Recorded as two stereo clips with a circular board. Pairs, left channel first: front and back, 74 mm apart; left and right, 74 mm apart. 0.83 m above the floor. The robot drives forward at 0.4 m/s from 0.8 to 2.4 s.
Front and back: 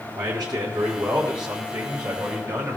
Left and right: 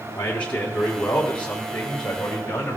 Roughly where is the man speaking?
Behind.